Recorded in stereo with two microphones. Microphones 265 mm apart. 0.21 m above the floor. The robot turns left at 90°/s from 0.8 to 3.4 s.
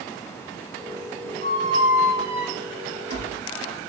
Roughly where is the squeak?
Behind right.